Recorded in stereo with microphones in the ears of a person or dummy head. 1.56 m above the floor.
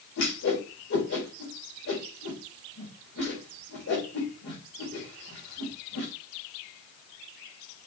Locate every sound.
0.2 s a whoosh: 55° left (ahead or behind), 4 m